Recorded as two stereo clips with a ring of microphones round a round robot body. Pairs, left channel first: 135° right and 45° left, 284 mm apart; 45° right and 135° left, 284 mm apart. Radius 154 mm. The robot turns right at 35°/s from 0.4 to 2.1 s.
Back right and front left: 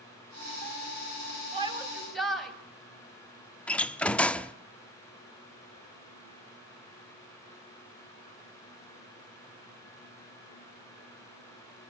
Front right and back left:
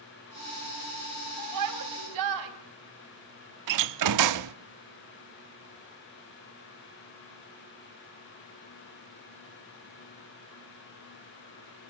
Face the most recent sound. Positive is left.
turn(degrees=140)